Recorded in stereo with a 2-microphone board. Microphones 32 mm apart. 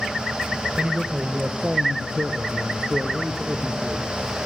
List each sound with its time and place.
0.8 s a man speaking: 35° right (ahead or behind), 2 m; by 4.2 s 5° right (ahead or behind), 5 m